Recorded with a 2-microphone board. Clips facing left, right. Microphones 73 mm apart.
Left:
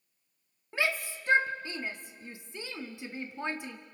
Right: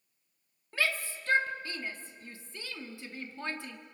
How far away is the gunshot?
No gunshot in this recording.